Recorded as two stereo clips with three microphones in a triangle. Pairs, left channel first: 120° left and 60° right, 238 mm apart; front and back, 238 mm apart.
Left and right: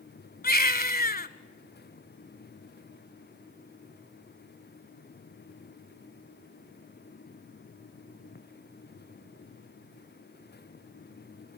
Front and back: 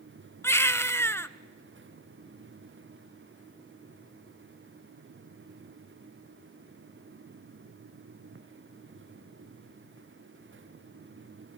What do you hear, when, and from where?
0.4 s a baby crying: 80° left, 0.7 m